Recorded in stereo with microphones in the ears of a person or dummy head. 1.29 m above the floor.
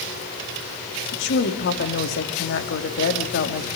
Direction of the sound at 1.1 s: 60° left (ahead or behind).